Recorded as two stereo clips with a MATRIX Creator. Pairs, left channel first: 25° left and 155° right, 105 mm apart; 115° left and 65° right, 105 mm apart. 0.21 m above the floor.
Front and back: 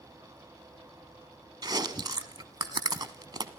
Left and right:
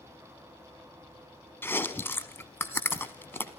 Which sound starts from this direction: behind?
Chewing, at 1.6 s.